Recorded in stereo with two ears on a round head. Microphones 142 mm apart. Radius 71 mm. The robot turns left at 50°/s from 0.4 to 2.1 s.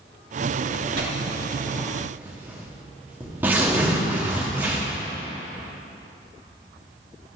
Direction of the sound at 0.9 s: 70° right (ahead or behind).